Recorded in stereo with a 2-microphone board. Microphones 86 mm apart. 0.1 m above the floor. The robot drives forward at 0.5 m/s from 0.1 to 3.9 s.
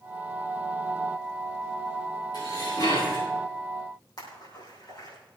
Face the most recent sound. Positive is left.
turn(degrees=55)  # may be behind; listen again after turning